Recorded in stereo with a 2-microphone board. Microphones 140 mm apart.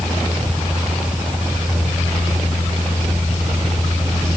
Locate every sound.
Only background noise.